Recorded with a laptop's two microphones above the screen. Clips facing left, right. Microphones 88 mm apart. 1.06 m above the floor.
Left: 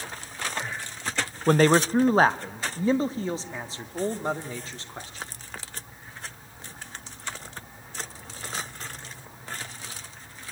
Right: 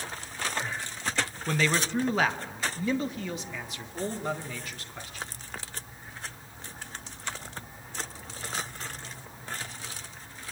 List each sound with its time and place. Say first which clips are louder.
1.5 s a man speaking: left 10 dB; 50° left (ahead or behind), 0.6 m; by 5.2 s 30° left (ahead or behind), 3 m